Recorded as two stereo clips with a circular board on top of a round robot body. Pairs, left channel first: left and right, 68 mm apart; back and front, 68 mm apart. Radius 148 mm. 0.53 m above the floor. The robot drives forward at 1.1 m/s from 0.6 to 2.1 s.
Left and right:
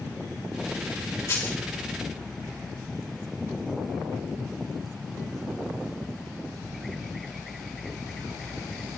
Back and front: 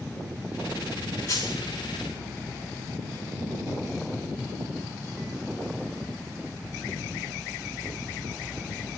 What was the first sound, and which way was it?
A dropped coin, 140° left.